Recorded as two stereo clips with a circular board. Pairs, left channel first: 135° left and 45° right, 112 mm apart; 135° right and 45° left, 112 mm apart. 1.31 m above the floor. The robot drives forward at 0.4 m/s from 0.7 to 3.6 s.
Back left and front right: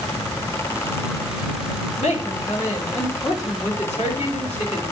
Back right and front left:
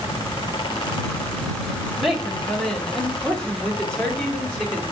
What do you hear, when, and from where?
2.0 s a woman speaking: 130° left, 1.8 m; by 4.9 s 145° left, 2.5 m